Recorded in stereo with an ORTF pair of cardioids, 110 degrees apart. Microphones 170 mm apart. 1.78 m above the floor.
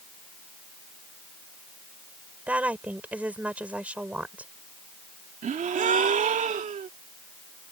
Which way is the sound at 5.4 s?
45° right.